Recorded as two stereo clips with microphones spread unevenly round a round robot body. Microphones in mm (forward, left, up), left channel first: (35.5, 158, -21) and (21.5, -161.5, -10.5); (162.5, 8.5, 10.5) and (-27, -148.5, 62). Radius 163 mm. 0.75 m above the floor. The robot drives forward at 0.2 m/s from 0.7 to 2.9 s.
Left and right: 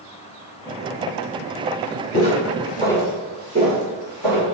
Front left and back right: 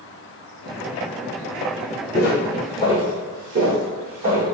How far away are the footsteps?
About 0.9 m.